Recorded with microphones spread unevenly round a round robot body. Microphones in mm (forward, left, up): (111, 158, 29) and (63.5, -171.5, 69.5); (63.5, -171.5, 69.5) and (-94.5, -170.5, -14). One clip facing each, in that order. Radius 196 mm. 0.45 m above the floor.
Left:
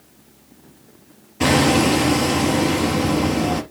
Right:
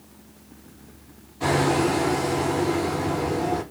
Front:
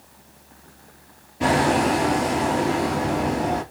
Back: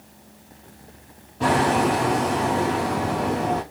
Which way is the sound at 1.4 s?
85° left.